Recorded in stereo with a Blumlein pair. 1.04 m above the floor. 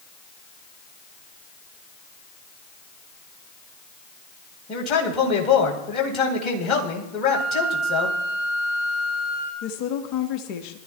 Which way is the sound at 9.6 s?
40° left.